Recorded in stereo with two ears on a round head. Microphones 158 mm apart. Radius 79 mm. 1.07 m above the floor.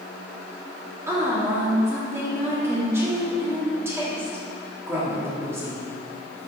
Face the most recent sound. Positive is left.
turn(degrees=-15)  # may be behind; listen again after turning